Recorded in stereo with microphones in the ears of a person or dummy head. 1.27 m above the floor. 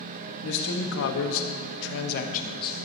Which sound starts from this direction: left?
A man speaking, at 0.4 s.